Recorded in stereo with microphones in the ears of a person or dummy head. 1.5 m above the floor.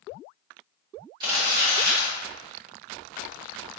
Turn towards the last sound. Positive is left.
turn(degrees=-25)  # may be behind; listen again after turning